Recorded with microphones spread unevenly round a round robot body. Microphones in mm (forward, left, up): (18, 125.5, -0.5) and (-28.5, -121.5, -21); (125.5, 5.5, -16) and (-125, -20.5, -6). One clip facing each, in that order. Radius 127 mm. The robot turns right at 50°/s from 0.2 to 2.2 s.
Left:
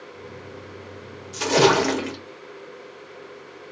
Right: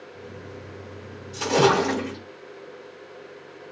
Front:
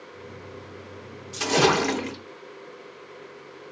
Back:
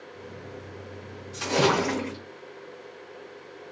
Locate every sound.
1.3 s a splash: 10° left, 0.8 m; by 2.2 s 55° left, 0.8 m